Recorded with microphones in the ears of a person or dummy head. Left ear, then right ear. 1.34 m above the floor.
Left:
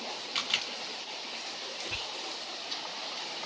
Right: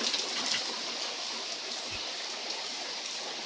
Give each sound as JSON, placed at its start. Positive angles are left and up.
{"t": 0.3, "sound": "a camera shutter", "side_deg": 50, "distance_m": 1.7}
{"t": 1.9, "sound": "whispering", "side_deg": 50, "distance_m": 1.0}